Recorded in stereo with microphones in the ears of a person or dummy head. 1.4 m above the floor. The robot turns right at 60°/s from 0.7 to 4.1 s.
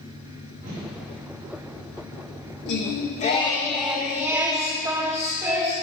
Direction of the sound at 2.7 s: 110° left.